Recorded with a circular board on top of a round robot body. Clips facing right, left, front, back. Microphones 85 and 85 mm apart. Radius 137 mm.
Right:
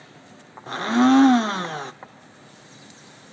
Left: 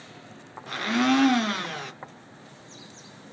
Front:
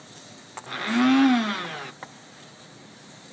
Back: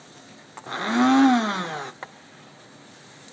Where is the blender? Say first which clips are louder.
Right 6 dB, back 1 dB; 130° right, 0.7 m.